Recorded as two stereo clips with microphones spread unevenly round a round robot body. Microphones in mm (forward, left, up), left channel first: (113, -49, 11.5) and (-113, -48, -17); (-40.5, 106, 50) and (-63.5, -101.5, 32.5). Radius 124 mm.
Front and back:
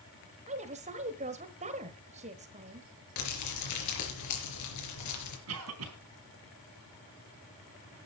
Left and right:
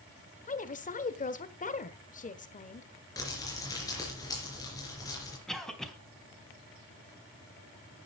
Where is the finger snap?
No finger snap in this recording.